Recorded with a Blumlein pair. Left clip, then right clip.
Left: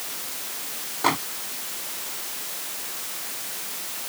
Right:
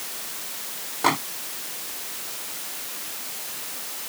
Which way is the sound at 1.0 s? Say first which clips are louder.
Right 1 dB; 5° right.